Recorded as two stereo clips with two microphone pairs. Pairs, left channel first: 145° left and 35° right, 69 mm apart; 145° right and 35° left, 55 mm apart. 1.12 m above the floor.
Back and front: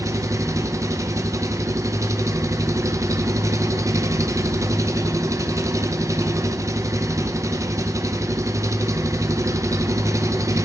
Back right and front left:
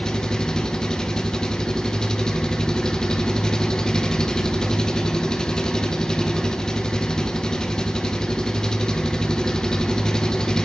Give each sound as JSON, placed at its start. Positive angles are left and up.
{"t": 0.0, "sound": "an engine running", "azimuth_deg": -65, "distance_m": 0.7}